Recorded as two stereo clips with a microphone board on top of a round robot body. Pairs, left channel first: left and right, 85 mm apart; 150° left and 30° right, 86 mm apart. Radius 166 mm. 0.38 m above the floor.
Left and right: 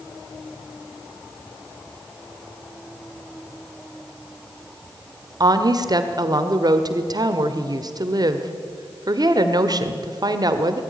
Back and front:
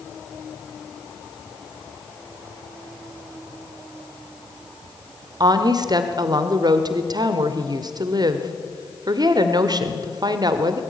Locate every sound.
5.4 s a woman speaking: 60° right, 1.6 m